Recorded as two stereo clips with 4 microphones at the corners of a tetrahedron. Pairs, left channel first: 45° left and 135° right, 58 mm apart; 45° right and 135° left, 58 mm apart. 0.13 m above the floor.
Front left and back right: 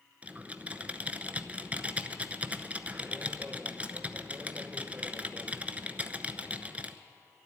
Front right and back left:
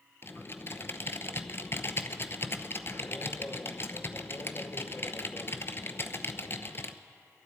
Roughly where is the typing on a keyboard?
Right.